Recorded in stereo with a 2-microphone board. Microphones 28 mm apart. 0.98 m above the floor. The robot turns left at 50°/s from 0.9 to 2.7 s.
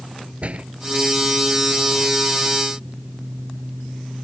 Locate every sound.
0.4 s a door slam: 50° right (ahead or behind)